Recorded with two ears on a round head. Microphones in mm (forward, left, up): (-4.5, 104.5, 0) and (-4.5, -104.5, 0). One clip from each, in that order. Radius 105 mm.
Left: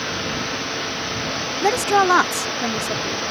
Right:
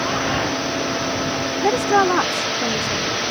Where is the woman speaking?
70° left (ahead or behind); by 3.2 s 55° left (ahead or behind).